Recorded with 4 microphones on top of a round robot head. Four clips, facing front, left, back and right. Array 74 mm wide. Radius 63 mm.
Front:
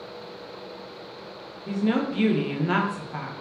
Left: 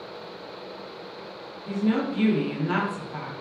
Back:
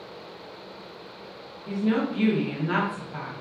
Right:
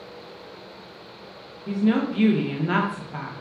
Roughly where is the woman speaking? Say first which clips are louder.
Right 3 dB, front 1 dB; ahead right.